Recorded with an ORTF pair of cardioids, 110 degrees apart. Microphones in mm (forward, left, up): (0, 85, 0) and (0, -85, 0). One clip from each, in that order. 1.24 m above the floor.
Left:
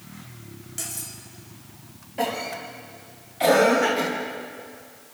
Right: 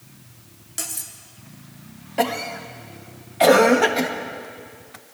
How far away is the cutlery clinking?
About 1.7 m.